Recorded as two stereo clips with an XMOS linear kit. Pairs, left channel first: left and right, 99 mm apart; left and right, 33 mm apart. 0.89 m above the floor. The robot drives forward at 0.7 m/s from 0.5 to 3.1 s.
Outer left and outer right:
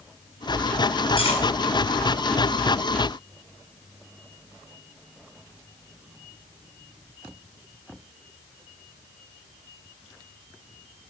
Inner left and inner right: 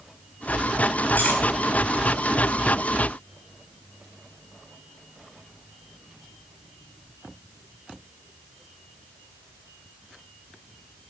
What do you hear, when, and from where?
1.2 s cutlery clinking: 60° left (ahead or behind), 5 m